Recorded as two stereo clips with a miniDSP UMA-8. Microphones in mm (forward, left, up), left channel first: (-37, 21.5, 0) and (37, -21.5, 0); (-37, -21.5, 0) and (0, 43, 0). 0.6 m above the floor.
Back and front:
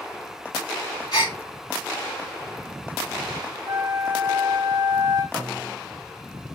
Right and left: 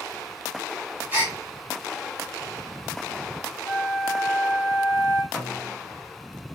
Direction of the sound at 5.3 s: 50° right.